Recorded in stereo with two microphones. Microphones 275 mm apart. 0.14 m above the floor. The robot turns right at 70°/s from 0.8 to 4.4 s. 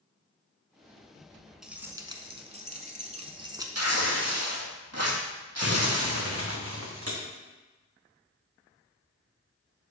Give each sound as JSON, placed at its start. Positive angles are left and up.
{"t": 1.6, "sound": "keys jangling", "side_deg": 0, "distance_m": 0.8}
{"t": 3.8, "sound": "tearing paper", "azimuth_deg": -120, "distance_m": 1.5}
{"t": 5.6, "sound": "crumpling", "side_deg": -60, "distance_m": 2.0}